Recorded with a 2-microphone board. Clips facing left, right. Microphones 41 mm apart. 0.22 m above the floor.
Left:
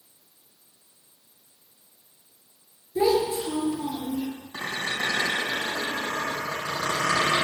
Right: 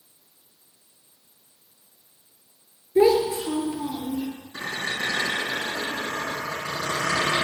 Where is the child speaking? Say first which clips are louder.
Right 4 dB; 40° right (ahead or behind), 1.9 m; by 4.3 s 15° right (ahead or behind), 2.5 m.